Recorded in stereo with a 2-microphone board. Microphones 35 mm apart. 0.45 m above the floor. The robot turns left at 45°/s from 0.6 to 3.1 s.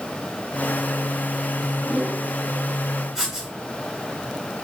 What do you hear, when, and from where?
1.8 s a whoosh: 45° right (ahead or behind), 1.9 m; by 2.2 s 50° right (ahead or behind), 1.9 m
3.1 s writing: 15° right (ahead or behind), 1.2 m